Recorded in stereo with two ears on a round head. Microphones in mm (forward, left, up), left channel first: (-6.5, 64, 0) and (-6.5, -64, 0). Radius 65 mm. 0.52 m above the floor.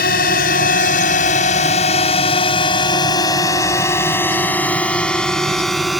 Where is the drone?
70° left (ahead or behind); by 6.0 s centre (ahead or behind).